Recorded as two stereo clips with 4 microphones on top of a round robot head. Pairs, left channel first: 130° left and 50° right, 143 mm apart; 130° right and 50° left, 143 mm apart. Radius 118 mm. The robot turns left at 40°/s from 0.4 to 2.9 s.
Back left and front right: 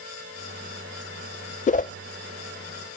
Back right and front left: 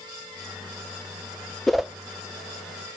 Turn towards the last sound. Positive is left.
turn(degrees=90)